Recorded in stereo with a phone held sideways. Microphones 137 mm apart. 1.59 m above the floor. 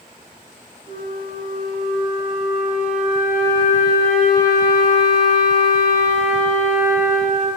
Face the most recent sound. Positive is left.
turn(degrees=-55)  # may be behind; listen again after turning